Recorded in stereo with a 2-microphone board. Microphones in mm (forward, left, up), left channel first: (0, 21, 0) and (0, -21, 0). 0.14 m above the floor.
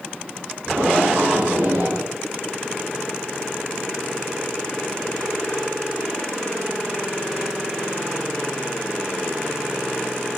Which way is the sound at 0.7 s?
80° right.